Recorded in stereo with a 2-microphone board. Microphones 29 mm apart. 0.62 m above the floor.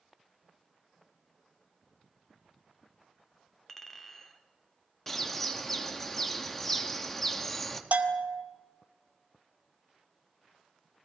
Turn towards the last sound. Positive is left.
turn(degrees=-75)  # may be behind; listen again after turning